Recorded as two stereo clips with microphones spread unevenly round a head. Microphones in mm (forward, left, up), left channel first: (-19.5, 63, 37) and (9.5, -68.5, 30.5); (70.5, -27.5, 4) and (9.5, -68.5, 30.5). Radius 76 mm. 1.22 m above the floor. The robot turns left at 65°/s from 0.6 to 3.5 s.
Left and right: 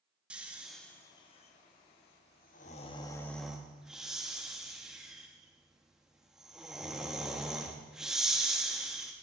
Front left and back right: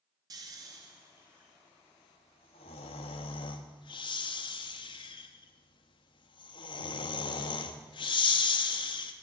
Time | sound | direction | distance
0.3 | snoring | 160° right | 0.9 m